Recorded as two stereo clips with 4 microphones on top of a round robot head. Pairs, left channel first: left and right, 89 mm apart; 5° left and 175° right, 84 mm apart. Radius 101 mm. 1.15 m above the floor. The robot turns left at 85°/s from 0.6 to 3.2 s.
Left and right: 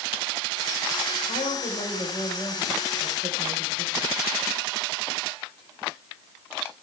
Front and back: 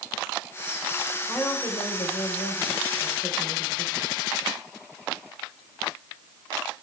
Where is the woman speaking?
95° left, 5 m; by 4.1 s 65° right, 5 m.